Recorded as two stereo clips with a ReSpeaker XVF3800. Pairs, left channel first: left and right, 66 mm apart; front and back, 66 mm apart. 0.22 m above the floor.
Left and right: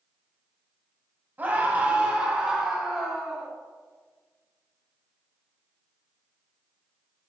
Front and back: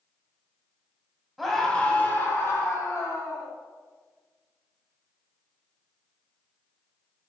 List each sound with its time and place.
1.4 s a scream: 90° right, 1.4 m; by 3.5 s straight ahead, 2.5 m